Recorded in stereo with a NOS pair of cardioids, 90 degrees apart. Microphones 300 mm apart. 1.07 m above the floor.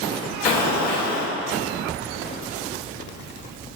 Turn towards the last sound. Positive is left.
turn(degrees=70)